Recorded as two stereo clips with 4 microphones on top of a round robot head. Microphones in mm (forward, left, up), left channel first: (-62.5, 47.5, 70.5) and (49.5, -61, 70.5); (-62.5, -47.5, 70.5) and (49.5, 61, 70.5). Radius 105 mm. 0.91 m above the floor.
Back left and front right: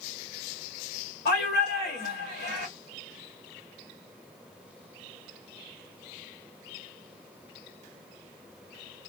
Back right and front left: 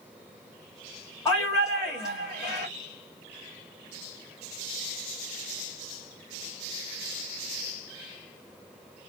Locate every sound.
1.2 s a shout: 155° left, 1.6 m